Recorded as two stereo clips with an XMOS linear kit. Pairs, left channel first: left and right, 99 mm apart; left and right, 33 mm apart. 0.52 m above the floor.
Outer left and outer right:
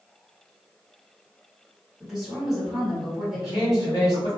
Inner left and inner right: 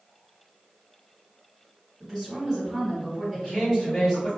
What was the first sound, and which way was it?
A woman speaking, 5° right (ahead or behind).